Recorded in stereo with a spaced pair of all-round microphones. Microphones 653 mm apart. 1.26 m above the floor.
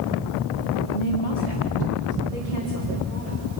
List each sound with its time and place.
0.9 s a woman speaking: 70° left (ahead or behind), 3 m; by 3.4 s 55° left (ahead or behind), 5.5 m